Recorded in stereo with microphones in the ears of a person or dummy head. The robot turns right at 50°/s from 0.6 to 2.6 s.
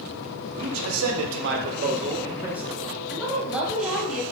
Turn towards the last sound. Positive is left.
turn(degrees=0)  # may be behind; listen again after turning